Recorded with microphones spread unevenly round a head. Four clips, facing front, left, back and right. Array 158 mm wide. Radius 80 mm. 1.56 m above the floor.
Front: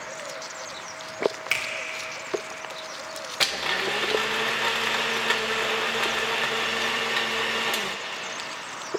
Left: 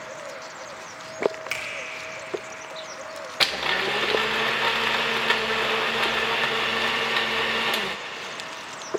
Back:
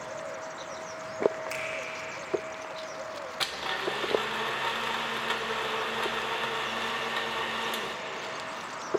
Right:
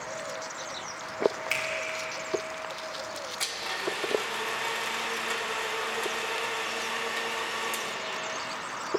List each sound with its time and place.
1.5 s a finger snap: 15° left, 2.5 m
3.4 s a blender: 55° left, 0.7 m